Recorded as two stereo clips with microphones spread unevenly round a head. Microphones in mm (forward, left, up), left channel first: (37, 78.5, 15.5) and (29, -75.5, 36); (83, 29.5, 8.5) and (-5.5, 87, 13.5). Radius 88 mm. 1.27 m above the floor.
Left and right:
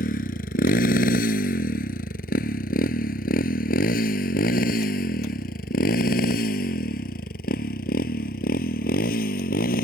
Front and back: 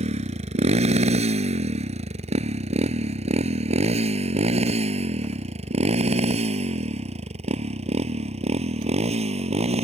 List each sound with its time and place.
0.0 s a motorcycle: 135° left; by 9.9 s 130° left